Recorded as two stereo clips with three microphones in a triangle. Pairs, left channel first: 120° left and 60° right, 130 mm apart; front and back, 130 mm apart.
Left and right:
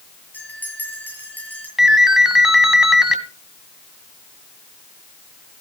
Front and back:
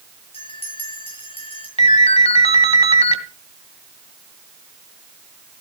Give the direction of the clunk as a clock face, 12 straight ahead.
I don't hear a clunk.